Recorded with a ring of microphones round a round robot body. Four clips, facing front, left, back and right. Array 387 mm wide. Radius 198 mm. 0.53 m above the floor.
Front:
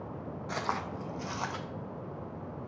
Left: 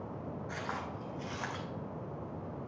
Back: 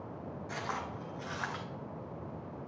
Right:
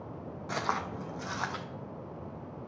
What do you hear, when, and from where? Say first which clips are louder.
0.5 s footsteps: right 9 dB, front 5 dB; 60° right, 1.0 m; by 1.6 s 35° right, 1.4 m